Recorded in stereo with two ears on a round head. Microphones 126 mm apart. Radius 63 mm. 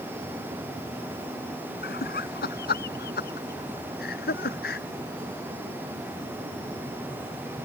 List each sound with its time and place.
1.8 s laughter: 75° left (ahead or behind)